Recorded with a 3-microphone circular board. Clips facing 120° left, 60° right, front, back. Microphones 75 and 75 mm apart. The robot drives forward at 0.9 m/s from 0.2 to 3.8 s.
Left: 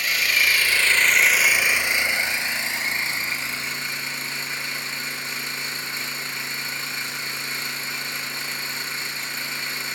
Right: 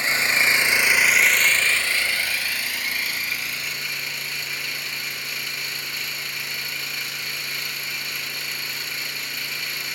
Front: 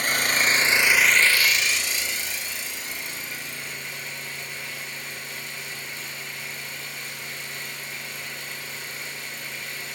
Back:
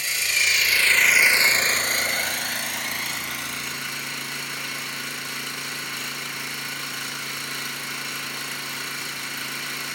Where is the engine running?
5° right, 1.0 m; by 10.0 s straight behind, 2.5 m.